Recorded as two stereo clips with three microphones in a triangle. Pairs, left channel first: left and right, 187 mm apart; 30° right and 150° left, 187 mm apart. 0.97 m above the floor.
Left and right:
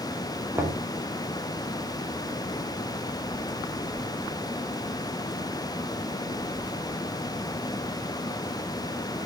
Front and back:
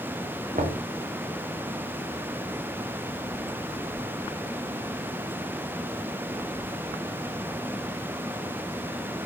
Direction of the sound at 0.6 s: 165° right.